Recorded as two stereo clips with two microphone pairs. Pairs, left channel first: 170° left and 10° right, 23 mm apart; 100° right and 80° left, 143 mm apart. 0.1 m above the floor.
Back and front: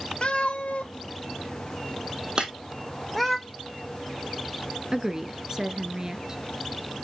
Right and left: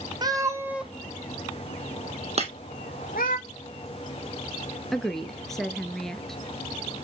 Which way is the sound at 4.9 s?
10° right.